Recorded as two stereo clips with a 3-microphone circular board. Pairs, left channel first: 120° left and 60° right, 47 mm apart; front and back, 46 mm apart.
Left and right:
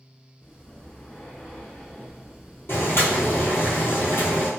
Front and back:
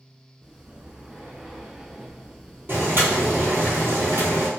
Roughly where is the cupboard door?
I don't hear a cupboard door.